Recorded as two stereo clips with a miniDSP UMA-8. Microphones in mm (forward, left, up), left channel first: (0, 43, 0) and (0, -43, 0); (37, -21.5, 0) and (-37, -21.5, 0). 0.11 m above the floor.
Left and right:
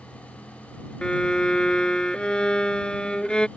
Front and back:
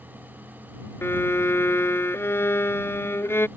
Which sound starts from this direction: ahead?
A violin, at 1.0 s.